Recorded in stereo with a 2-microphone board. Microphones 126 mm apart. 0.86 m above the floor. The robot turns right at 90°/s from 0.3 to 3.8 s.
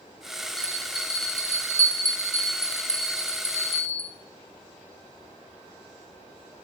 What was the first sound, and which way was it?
A bell, straight ahead.